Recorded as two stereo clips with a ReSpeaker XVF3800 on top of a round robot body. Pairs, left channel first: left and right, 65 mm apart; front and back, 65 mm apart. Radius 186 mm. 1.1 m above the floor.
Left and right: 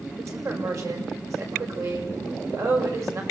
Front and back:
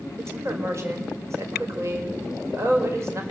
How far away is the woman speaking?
About 5.5 m.